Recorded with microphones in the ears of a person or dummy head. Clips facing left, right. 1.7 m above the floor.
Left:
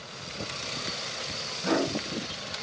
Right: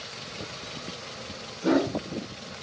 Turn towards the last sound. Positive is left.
turn(degrees=-60)  # may be behind; listen again after turning